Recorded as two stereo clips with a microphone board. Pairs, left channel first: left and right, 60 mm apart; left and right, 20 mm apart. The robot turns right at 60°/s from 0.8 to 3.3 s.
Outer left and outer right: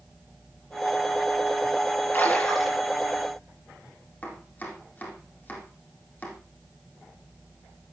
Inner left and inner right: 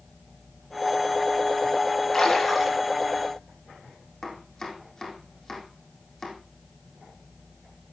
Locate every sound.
2.1 s a splash: 145° left, 4 m; by 2.8 s 175° right, 4 m
4.2 s chopping: 25° left (ahead or behind), 3.5 m